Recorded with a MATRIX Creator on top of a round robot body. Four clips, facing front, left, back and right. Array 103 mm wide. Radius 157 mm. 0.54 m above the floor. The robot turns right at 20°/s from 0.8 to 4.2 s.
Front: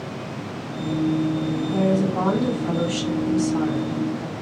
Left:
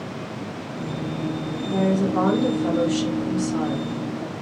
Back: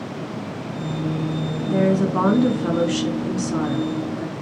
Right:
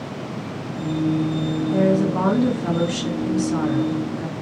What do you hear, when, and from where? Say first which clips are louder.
1.7 s a woman speaking: right 2 dB, back 4 dB; 175° left, 1.8 m; by 4.3 s 130° right, 1.8 m